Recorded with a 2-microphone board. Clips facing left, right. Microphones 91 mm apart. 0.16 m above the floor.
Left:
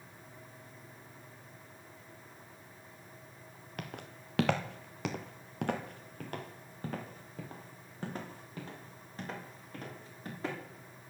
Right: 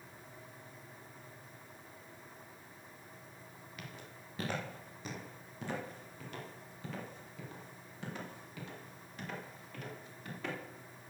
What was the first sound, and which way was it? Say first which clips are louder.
Footsteps: left 7 dB; 55° left (ahead or behind).